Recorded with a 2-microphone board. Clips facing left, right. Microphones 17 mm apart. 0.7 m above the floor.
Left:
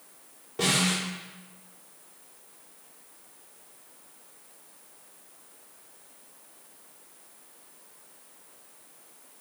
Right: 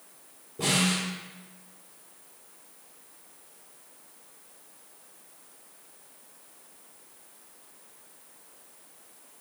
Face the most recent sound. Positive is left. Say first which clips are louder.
# left 1 dB
turn(degrees=70)  # may be behind; listen again after turning